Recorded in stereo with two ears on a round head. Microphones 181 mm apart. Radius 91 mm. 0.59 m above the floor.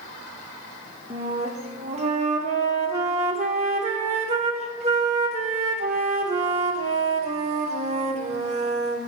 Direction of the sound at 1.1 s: 35° right (ahead or behind).